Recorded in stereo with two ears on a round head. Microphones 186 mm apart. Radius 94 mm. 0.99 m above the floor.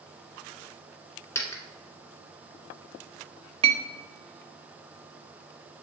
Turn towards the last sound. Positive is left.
turn(degrees=-25)  # may be behind; listen again after turning